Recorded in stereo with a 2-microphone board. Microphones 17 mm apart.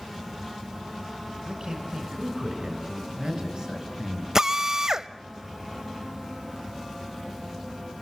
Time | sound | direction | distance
1.5 | a man speaking | 45° right (ahead or behind) | 5 m
4.3 | a drill | 35° right (ahead or behind) | 0.6 m